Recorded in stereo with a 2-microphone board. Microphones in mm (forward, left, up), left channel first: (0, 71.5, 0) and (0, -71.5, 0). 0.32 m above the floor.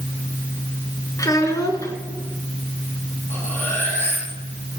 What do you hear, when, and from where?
1.2 s a child speaking: 20° left (ahead or behind), 3 m
3.3 s cutlery clinking: 15° left (ahead or behind), 8.5 m